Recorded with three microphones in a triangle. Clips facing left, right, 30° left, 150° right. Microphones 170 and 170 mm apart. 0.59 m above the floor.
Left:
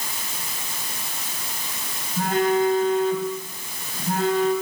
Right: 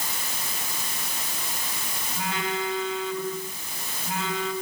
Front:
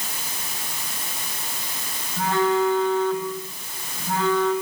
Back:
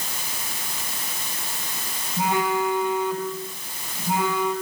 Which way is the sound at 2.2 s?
135° left.